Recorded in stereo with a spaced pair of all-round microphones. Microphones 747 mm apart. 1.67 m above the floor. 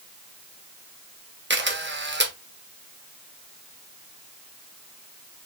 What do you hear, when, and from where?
1.5 s a camera shutter: 15° right (ahead or behind), 1.0 m